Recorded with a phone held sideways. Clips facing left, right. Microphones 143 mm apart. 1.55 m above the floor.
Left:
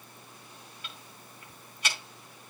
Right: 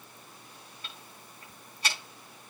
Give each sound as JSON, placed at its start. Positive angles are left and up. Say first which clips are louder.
{"t": 0.8, "sound": "ticking", "louder": "even", "side_deg": -35, "distance_m": 4.5}